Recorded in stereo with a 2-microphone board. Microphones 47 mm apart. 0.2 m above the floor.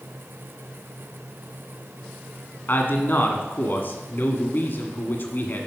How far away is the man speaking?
About 1.6 m.